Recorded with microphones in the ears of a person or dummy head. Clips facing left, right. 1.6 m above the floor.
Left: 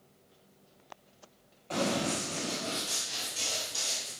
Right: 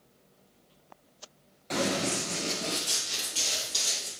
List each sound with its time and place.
1.7 s running footsteps: 25° right (ahead or behind), 1.8 m; by 4.1 s 40° right (ahead or behind), 3.5 m